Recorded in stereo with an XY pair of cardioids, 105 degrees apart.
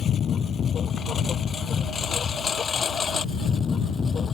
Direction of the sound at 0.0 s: 55° left.